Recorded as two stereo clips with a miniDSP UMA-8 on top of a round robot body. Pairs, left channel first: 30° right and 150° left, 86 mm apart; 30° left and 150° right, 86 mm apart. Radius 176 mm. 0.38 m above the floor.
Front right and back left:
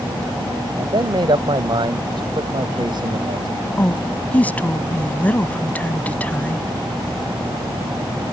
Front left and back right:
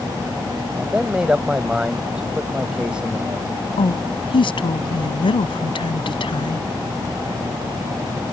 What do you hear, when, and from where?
0.8 s a man speaking: 130° left
3.8 s a woman speaking: 40° left